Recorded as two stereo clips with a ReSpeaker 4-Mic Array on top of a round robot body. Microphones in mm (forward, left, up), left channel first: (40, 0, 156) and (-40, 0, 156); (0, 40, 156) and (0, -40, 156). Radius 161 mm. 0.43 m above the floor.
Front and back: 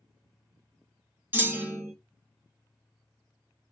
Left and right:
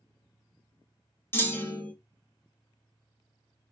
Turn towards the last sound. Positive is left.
turn(degrees=130)